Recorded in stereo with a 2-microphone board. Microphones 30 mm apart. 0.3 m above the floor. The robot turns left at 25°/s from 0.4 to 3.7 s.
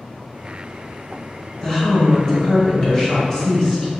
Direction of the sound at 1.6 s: 20° left (ahead or behind).